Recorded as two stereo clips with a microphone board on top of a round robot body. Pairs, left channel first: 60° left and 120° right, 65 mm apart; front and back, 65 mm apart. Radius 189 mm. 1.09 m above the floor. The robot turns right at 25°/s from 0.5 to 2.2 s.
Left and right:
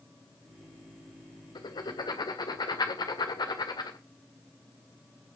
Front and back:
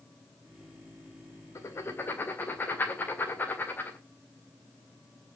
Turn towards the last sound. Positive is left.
turn(degrees=65)